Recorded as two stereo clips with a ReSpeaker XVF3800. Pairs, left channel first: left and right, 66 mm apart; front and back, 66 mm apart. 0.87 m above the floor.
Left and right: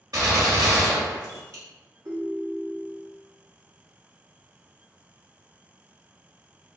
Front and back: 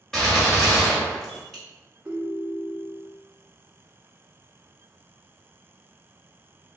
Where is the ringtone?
115° right, 0.9 m.